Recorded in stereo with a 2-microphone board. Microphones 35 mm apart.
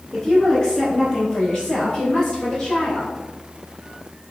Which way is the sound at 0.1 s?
20° left (ahead or behind).